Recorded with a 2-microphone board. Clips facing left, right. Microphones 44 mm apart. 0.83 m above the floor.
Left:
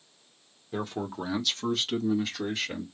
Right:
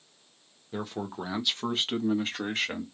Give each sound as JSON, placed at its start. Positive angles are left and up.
{"t": 0.7, "sound": "a man speaking", "side_deg": 5, "distance_m": 1.2}